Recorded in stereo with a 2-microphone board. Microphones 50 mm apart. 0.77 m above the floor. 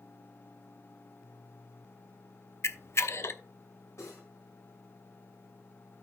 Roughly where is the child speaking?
I don't hear a child speaking.